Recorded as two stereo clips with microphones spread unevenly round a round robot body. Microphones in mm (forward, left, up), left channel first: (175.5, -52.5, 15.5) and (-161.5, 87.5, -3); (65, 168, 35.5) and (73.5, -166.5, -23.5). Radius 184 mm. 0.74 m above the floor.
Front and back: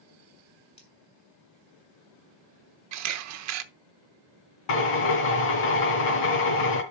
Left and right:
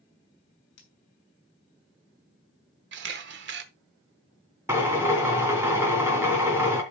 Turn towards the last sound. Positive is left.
turn(degrees=-5)